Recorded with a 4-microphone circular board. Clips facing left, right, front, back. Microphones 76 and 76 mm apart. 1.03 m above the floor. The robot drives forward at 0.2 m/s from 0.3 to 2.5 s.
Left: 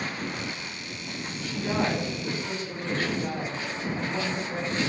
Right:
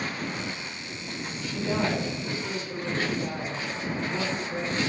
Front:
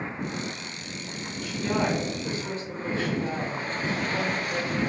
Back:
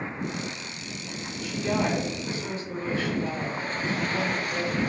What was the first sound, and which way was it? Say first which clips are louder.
A woman speaking: even, even; 50° left.